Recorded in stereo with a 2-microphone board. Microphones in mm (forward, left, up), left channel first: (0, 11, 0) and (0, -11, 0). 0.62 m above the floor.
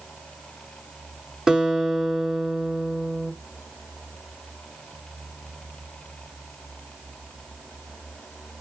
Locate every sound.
1.5 s a guitar: 20° right (ahead or behind), 1.2 m